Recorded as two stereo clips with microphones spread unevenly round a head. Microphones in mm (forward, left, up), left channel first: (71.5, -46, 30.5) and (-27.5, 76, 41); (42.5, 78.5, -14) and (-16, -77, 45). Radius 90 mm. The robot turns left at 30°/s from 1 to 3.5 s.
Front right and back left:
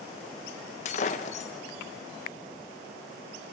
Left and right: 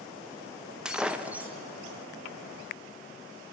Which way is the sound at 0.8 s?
65° right.